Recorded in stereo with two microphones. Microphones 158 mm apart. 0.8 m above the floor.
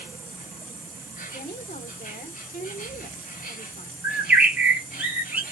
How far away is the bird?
About 1.0 m.